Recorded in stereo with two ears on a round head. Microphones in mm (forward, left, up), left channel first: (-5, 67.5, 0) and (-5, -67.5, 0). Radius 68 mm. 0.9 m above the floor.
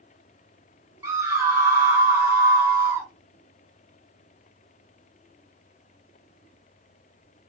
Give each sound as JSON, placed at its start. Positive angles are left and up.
{"t": 1.0, "sound": "a scream", "side_deg": -15, "distance_m": 1.0}